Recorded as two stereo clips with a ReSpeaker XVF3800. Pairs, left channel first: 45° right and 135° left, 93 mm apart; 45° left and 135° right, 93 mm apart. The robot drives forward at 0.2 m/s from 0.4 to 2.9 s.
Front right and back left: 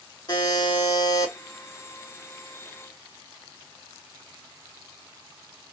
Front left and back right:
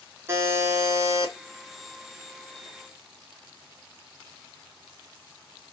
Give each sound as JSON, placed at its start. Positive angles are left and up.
{"t": 0.3, "sound": "a buzzer", "azimuth_deg": -75, "distance_m": 0.8}